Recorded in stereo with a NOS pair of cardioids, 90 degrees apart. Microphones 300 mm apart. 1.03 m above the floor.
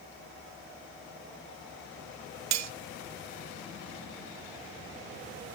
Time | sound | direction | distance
2.5 | cutlery clinking | 70° right | 0.9 m